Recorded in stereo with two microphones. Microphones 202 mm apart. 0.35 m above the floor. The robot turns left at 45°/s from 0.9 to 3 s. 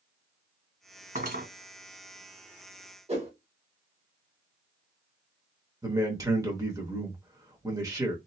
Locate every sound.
1.1 s cutlery clinking: 35° right (ahead or behind), 1.7 m; by 1.5 s 50° right (ahead or behind), 1.7 m
3.1 s a whoosh: 30° right (ahead or behind), 1.1 m
5.8 s a man speaking: 15° right (ahead or behind), 0.9 m